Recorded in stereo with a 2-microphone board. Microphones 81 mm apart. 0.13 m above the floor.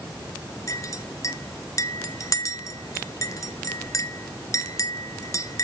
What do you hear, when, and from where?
0.7 s a clink: 45° left (ahead or behind), 0.9 m